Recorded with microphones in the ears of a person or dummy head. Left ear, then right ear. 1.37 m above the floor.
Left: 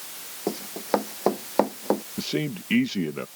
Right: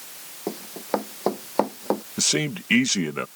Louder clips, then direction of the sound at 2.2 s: Right 5 dB; 50° right (ahead or behind).